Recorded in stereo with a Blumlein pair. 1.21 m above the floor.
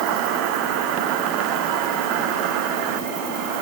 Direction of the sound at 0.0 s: 45° right.